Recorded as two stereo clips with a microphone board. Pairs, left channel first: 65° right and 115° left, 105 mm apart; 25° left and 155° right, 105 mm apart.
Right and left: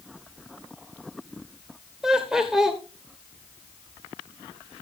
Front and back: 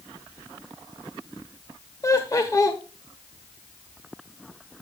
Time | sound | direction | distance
2.0 | laughter | 30° left | 1.2 m